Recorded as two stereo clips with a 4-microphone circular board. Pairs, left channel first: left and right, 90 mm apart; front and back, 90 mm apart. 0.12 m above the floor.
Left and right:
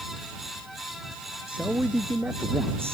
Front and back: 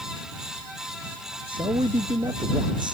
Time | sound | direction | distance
1.5 | a man speaking | 165° right | ?